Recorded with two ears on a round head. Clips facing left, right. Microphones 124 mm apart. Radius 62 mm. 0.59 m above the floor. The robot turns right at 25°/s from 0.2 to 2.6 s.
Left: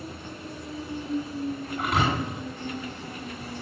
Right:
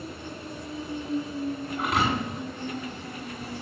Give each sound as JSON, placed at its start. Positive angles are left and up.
{"t": 1.8, "sound": "a thud", "side_deg": -5, "distance_m": 7.5}